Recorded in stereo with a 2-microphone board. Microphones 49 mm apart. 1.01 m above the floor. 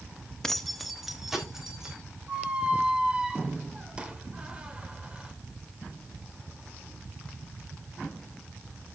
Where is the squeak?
20° right (ahead or behind), 1.0 m.